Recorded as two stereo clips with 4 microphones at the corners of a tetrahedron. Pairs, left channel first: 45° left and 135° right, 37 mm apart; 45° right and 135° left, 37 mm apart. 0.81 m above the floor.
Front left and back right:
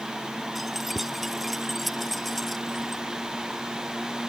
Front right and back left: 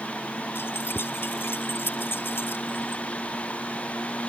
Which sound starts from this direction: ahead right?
Keys jangling, at 0.6 s.